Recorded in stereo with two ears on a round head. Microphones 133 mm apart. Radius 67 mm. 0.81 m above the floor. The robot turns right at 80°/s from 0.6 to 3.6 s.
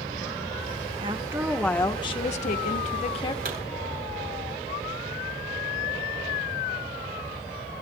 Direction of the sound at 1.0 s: 45° right.